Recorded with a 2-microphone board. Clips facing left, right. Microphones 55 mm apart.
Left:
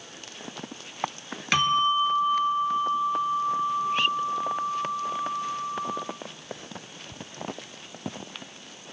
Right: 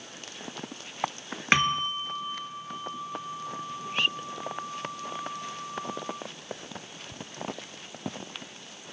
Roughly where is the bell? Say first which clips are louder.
Left 3 dB; right.